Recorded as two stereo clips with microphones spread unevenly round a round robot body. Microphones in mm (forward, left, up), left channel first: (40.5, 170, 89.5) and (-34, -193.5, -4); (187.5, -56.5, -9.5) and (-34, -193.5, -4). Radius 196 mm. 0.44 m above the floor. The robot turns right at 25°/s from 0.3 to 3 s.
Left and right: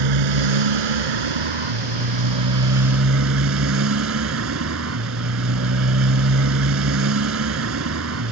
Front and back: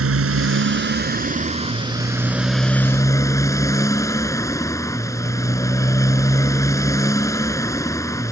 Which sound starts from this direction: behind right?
A motorcycle, at 0.0 s.